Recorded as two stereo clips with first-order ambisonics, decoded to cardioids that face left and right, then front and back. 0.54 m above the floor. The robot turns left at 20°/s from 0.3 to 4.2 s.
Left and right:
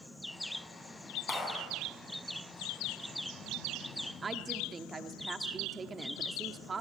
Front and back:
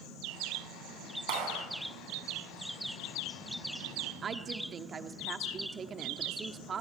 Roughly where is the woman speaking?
Behind right.